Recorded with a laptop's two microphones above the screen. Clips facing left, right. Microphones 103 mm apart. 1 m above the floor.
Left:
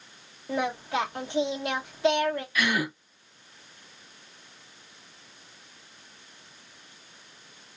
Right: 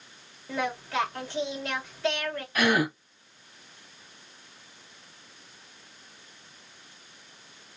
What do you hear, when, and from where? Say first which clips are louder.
0.5 s singing: left 2 dB; 20° left (ahead or behind), 1.8 m
2.5 s a gasp: right 8 dB; 45° right (ahead or behind), 1.4 m